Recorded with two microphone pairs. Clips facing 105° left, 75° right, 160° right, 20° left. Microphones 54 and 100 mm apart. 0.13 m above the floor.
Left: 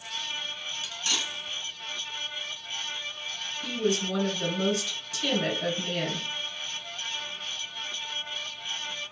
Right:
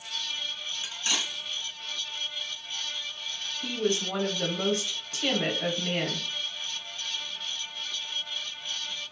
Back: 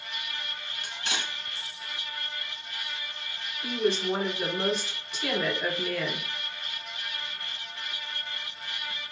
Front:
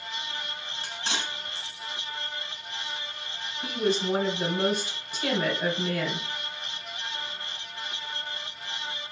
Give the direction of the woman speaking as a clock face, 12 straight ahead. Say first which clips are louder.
Left 1 dB, even; 1 o'clock.